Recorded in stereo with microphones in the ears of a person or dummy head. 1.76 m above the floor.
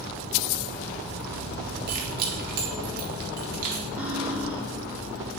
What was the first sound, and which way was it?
Keys jangling, 45° right (ahead or behind).